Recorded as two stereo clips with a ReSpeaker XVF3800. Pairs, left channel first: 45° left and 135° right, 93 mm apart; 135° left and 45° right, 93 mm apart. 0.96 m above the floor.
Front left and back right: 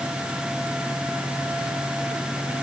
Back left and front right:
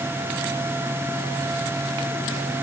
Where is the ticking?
I don't hear ticking.